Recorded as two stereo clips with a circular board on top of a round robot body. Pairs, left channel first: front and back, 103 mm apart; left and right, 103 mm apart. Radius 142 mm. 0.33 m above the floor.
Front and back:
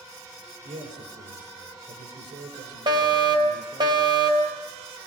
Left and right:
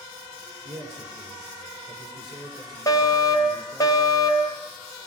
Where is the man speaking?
Straight behind, 7 m.